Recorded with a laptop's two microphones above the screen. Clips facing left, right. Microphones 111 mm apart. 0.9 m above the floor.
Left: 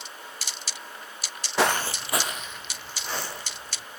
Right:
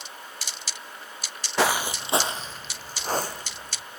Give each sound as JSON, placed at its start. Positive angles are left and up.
{"t": 1.6, "sound": "footsteps", "side_deg": 0, "distance_m": 1.2}